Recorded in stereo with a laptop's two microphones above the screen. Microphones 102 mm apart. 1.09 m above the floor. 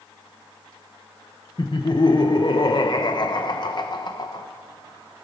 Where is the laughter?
45° left (ahead or behind), 0.6 m.